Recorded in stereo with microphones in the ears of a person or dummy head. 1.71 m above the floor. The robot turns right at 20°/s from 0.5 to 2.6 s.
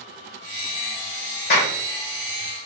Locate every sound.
1.5 s a clap: 50° left (ahead or behind), 0.9 m; by 1.8 s 45° left (ahead or behind), 0.9 m